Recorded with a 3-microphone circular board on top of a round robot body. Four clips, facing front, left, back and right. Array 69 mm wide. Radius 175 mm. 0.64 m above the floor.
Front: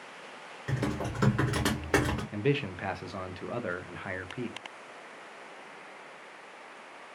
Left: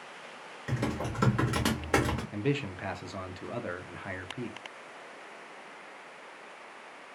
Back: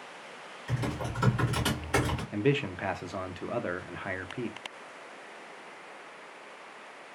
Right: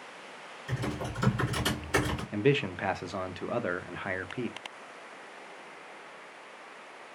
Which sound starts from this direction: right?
A man speaking, at 2.3 s.